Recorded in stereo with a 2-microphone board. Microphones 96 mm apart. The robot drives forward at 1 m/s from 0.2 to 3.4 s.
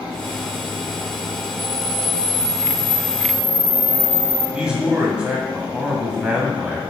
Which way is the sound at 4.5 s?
10° right (ahead or behind).